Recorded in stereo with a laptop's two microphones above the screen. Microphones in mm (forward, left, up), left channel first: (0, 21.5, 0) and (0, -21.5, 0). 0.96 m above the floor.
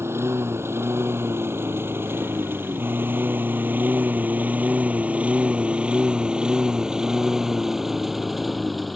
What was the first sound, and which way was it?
A lawn mower, 75° right (ahead or behind).